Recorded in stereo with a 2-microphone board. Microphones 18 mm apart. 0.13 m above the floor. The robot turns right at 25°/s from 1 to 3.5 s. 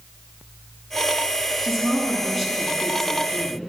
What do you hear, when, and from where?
1.6 s a woman speaking: straight ahead, 2 m; by 3.6 s 45° left, 2 m